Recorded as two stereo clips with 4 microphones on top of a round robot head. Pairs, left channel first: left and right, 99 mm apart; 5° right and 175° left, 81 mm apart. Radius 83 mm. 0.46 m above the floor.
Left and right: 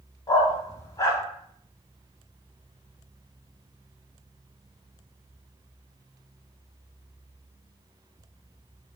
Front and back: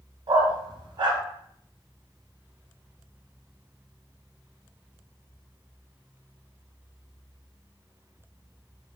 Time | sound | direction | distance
0.3 | a dog barking | 145° left | 0.8 m